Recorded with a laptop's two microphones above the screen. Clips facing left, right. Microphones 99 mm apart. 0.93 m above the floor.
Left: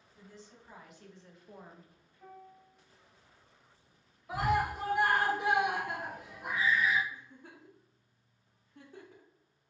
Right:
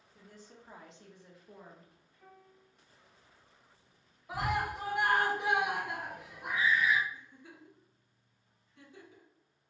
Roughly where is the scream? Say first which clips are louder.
Left 3 dB; centre.